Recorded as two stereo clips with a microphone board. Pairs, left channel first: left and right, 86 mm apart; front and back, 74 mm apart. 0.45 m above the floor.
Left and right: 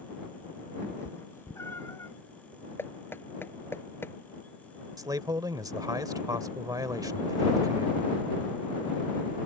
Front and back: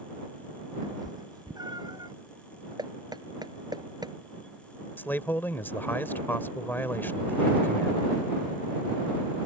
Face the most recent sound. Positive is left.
turn(degrees=-60)